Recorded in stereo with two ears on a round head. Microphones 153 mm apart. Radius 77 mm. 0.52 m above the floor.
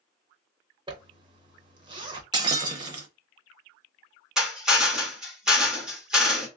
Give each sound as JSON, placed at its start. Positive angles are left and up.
{"t": 0.9, "sound": "a zipper", "side_deg": -25, "distance_m": 0.8}
{"t": 2.3, "sound": "breaking glass", "side_deg": -25, "distance_m": 0.7}
{"t": 4.4, "sound": "a drill", "side_deg": -5, "distance_m": 1.2}